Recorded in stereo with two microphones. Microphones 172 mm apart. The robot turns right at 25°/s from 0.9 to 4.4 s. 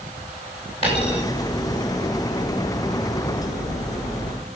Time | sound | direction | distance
0.8 | a dropped coin | 35° left (ahead or behind) | 9.5 m